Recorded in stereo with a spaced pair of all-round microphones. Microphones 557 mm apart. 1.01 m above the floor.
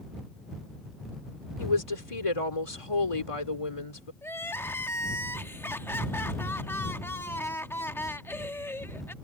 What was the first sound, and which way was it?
A woman speaking, 65° left (ahead or behind).